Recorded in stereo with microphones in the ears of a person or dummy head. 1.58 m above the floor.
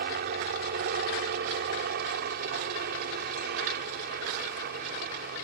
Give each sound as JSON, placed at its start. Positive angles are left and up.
{"t": 0.0, "sound": "a helicopter", "side_deg": -50}